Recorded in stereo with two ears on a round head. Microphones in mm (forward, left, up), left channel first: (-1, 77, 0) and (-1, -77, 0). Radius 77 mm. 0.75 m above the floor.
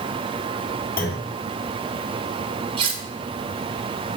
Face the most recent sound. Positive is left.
turn(degrees=-30)  # may be behind; listen again after turning